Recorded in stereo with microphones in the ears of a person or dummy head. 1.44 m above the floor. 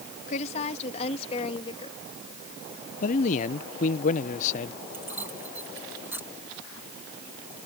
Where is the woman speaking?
45° left (ahead or behind); by 2.0 s 30° left (ahead or behind).